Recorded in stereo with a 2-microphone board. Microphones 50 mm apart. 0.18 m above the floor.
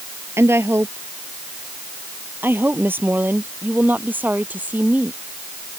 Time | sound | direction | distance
0.4 | a woman speaking | 60° right (ahead or behind) | ?